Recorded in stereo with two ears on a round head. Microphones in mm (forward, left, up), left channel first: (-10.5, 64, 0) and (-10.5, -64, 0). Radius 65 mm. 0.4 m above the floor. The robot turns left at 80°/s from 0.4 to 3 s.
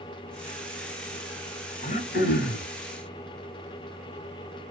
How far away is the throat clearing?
About 1.0 m.